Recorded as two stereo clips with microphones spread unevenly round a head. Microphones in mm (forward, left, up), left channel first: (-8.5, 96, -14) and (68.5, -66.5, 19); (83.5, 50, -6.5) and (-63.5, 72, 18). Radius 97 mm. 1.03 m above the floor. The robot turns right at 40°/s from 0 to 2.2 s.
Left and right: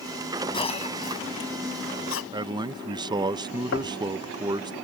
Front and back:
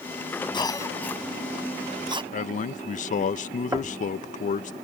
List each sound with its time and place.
0.5 s a cough: 50° left; by 2.2 s 115° left
2.3 s a man speaking: 5° left
3.7 s knocking: 105° left